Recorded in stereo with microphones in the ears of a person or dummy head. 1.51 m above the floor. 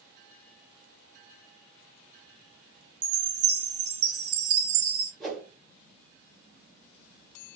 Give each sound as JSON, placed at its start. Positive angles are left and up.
{"t": 3.0, "sound": "a chime", "side_deg": -75, "distance_m": 0.8}
{"t": 5.2, "sound": "a whoosh", "side_deg": 5, "distance_m": 1.1}